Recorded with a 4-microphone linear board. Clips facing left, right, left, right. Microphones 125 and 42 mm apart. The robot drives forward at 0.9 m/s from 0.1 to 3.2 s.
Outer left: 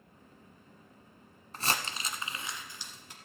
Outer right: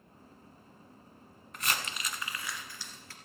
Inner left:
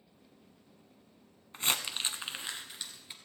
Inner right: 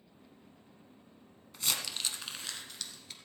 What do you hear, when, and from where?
1.5 s crumpling: 35° left (ahead or behind), 1.1 m; by 3.1 s 20° left (ahead or behind), 2 m